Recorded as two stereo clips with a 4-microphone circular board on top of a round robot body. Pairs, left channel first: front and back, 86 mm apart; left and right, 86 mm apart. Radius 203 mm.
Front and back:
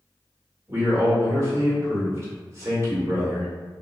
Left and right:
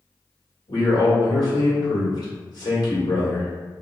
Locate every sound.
0.7 s a man speaking: 125° left, 1.7 m